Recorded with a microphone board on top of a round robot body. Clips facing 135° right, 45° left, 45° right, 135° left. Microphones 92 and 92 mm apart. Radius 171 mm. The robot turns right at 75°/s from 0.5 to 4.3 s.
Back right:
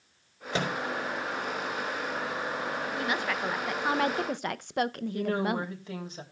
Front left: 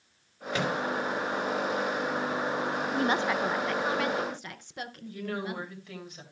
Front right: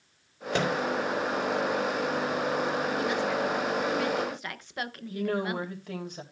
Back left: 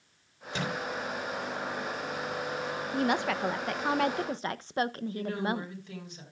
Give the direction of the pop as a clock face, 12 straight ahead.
I don't hear a pop.